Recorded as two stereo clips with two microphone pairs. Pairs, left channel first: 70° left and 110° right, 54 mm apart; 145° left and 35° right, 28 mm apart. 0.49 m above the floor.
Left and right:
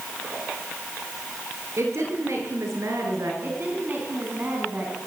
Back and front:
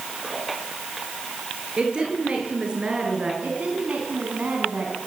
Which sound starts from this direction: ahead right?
A woman speaking, at 3.4 s.